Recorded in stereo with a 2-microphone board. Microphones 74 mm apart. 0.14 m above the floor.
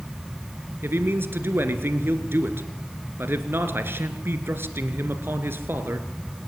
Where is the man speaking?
35° right (ahead or behind), 2.5 m.